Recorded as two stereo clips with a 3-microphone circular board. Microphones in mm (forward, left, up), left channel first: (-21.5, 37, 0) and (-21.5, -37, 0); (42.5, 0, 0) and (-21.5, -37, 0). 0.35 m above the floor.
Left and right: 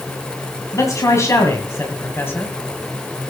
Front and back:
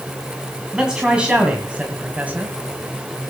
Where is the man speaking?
130° left, 2.5 m; by 2.5 s 145° left, 1.9 m.